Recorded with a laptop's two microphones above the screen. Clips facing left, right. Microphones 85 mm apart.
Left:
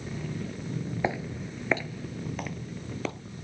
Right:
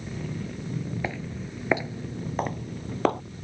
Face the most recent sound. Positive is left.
turn(degrees=-60)  # may be behind; listen again after turning